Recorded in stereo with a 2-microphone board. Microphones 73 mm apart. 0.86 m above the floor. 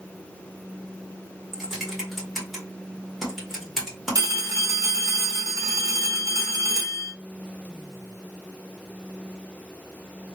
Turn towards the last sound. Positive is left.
turn(degrees=-50)  # may be behind; listen again after turning